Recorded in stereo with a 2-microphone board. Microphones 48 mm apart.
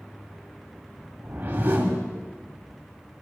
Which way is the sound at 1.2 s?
40° right (ahead or behind).